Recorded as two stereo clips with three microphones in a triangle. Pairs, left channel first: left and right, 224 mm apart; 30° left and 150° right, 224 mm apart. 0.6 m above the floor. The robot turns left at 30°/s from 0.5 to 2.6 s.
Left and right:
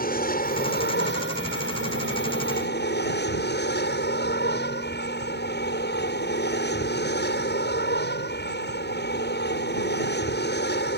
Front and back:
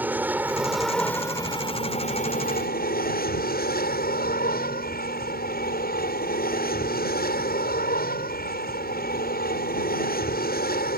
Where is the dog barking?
No dog barking in this recording.